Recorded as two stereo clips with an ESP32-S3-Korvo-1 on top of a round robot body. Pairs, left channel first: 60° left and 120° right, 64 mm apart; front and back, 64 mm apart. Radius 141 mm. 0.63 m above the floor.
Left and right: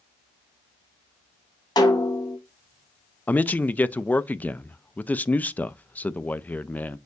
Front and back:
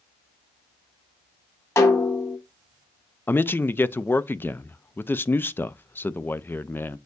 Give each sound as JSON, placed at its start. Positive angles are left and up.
{"t": 1.8, "sound": "a snare drum", "azimuth_deg": 45, "distance_m": 2.5}
{"t": 3.3, "sound": "a man speaking", "azimuth_deg": 20, "distance_m": 0.6}